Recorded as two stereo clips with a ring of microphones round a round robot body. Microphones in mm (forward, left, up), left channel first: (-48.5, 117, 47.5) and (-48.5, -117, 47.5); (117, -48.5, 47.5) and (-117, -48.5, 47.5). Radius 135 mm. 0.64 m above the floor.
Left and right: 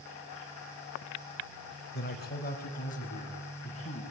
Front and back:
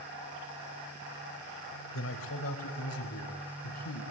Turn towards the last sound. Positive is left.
turn(degrees=25)